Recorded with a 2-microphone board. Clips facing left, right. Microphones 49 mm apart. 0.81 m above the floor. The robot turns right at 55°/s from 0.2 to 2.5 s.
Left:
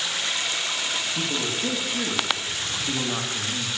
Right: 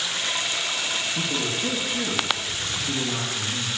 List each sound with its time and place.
1.1 s a man speaking: 5° left, 1.4 m; by 3.8 s 80° left, 1.4 m